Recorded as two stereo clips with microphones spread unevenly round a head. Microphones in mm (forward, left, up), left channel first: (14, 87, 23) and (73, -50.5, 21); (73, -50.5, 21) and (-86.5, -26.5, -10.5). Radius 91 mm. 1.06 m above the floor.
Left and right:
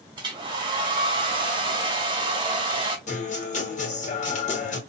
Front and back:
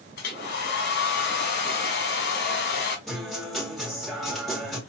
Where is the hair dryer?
10° right, 2 m.